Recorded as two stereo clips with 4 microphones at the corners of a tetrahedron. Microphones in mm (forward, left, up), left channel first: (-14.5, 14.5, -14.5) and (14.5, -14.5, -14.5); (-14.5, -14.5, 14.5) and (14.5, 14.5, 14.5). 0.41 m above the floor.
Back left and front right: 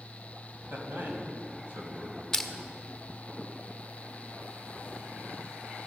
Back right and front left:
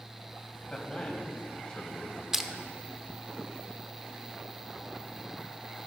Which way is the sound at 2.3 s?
95° left.